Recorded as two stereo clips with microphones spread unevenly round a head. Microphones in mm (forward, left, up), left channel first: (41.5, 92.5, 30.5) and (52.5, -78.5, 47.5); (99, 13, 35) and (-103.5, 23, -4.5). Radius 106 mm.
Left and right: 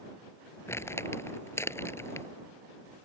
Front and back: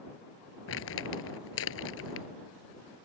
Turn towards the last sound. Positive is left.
turn(degrees=15)